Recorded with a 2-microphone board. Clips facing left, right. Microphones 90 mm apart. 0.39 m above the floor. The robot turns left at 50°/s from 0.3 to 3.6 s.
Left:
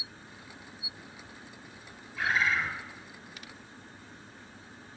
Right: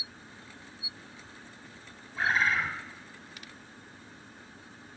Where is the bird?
30° right (ahead or behind), 2 m; by 2.7 s 55° right (ahead or behind), 2 m.